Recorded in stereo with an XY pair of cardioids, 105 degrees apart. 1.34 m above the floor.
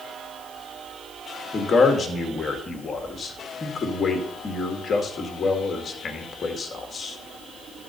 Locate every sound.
1.5 s a man speaking: 40° left, 1.9 m